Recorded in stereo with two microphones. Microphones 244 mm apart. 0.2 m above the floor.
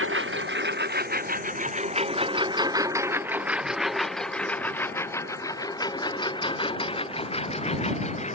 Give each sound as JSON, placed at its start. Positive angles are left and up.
{"t": 0.0, "sound": "a lawn mower", "side_deg": -55}